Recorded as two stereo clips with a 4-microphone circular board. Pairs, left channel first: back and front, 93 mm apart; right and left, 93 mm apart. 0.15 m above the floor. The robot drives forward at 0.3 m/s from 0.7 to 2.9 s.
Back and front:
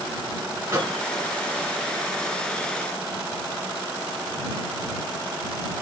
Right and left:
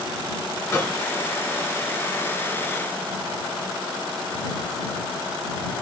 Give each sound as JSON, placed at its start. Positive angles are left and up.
{"t": 0.7, "sound": "a microwave", "azimuth_deg": -50, "distance_m": 1.6}